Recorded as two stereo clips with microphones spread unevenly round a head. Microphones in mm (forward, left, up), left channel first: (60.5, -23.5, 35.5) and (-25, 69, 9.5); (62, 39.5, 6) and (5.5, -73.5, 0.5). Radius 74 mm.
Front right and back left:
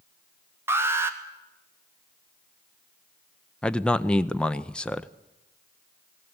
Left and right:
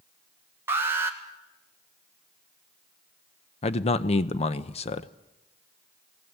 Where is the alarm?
Straight behind, 1.7 m.